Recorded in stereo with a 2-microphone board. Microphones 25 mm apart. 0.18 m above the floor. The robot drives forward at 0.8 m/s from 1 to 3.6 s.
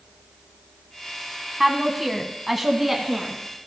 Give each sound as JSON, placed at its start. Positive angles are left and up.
{"t": 1.6, "sound": "a woman speaking", "side_deg": -10, "distance_m": 1.1}